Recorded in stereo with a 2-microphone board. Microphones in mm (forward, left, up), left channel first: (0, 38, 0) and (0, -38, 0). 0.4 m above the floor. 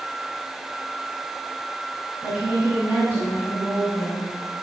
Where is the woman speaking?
20° right (ahead or behind), 6 m; by 4.3 s 45° right (ahead or behind), 6 m.